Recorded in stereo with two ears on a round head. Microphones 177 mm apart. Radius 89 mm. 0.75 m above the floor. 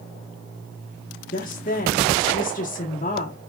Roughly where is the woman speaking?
Left.